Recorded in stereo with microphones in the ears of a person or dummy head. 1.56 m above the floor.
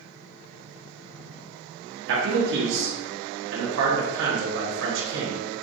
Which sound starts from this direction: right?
A man speaking, at 2.1 s.